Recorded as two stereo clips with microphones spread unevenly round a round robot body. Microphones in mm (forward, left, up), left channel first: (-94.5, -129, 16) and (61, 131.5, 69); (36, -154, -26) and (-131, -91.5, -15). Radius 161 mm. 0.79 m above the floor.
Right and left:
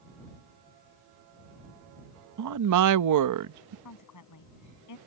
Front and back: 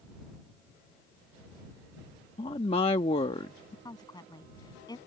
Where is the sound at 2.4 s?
40° left.